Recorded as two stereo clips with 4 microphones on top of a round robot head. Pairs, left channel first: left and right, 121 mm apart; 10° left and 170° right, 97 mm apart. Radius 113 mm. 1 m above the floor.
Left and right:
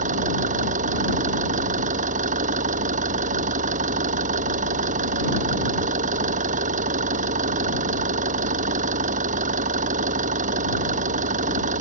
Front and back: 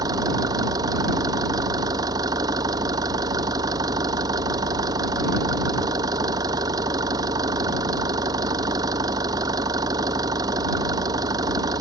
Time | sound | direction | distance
0.0 | an engine running | 110° right | ?